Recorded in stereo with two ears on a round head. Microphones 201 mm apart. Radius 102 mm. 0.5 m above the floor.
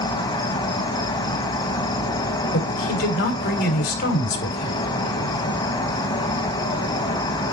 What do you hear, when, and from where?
0.0 s an insect: 20° left (ahead or behind), 1.0 m
2.5 s a woman speaking: 45° left (ahead or behind), 2 m